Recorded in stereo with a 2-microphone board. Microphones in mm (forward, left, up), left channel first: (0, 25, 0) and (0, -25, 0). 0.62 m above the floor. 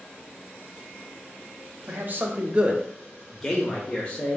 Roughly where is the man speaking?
Right.